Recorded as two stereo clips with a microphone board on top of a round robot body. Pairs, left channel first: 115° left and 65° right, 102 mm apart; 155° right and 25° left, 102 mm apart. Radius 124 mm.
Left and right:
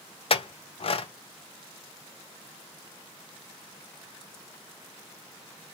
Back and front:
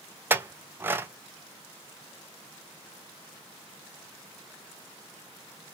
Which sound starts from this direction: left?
A clink, at 0.3 s.